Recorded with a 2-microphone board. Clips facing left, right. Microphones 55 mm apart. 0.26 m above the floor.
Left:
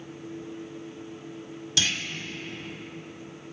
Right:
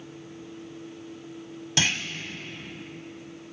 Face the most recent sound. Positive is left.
turn(degrees=-40)  # may be behind; listen again after turning